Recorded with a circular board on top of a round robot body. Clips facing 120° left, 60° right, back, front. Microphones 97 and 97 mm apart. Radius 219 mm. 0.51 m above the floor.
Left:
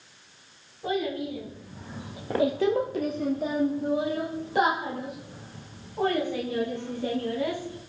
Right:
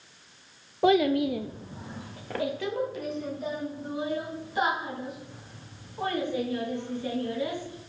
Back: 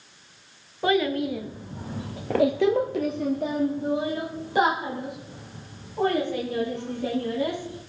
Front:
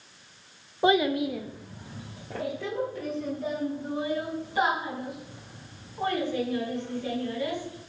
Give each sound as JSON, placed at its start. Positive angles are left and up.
{"t": 0.8, "sound": "a child speaking", "azimuth_deg": -65, "distance_m": 0.7}